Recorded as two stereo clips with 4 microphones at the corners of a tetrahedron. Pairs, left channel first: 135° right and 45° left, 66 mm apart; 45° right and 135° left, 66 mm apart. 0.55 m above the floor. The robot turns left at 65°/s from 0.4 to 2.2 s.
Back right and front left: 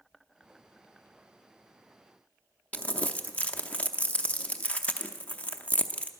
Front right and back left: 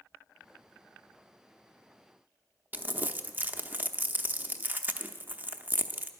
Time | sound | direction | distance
2.7 | crumpling | 170° left | 0.6 m